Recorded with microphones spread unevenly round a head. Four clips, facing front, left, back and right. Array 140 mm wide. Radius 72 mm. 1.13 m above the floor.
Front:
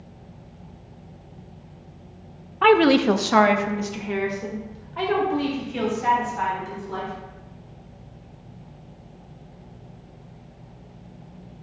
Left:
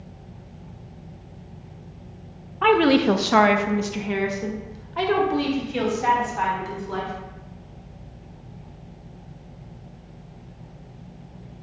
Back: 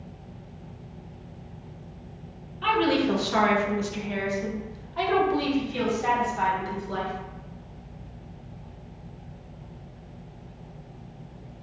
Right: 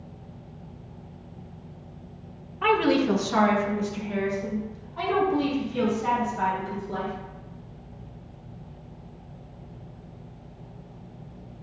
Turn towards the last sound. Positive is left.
turn(degrees=85)